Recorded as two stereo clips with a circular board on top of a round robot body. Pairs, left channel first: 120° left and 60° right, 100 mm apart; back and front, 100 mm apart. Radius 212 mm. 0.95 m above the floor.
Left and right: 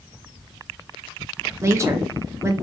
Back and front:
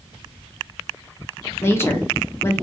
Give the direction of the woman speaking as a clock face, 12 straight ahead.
4 o'clock.